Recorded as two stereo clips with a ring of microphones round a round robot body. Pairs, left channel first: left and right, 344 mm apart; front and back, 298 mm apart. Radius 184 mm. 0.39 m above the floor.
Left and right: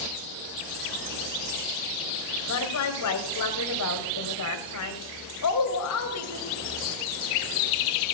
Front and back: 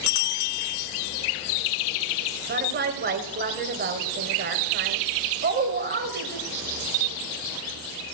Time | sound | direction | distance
2.5 | a woman speaking | 130° left | 2 m